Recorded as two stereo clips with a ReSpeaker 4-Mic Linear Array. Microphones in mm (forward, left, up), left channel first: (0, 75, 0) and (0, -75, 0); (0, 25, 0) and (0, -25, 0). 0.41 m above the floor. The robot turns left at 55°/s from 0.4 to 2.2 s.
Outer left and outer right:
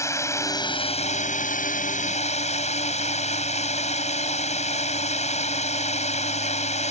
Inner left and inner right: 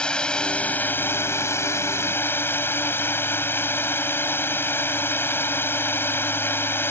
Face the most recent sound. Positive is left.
turn(degrees=60)